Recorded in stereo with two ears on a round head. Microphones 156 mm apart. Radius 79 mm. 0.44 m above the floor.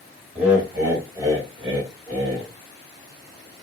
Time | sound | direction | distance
0.3 | laughter | 10° right (ahead or behind) | 1.6 m